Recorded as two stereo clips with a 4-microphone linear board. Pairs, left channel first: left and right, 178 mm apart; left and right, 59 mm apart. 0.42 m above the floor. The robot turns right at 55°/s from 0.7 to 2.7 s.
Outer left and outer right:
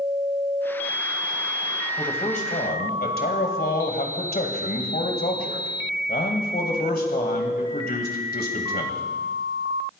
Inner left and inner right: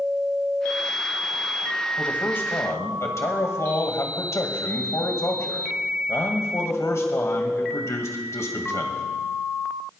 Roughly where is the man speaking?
Ahead left.